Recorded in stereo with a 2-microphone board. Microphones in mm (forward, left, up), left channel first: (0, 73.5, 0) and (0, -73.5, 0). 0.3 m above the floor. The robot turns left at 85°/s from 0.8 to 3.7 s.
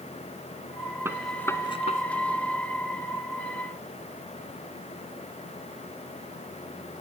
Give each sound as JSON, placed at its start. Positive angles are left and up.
{"t": 1.1, "sound": "a gunshot", "side_deg": -20, "distance_m": 1.7}